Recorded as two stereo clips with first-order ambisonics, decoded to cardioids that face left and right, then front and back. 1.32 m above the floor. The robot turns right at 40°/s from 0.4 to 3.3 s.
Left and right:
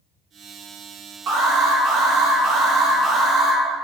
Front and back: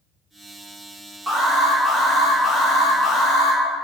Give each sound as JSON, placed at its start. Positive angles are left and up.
{"t": 1.3, "sound": "an alarm", "azimuth_deg": -120, "distance_m": 0.7}